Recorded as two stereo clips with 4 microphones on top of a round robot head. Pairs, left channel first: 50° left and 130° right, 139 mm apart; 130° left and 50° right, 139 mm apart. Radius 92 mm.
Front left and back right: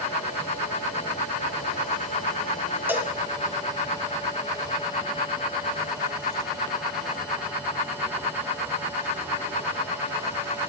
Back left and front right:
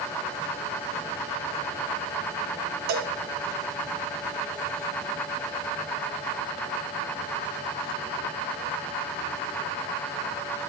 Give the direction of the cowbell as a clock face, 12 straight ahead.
2 o'clock.